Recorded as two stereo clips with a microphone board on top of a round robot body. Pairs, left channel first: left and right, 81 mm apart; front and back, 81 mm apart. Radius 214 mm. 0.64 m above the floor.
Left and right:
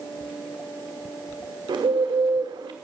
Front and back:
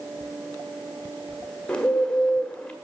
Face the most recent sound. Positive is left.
turn(degrees=-80)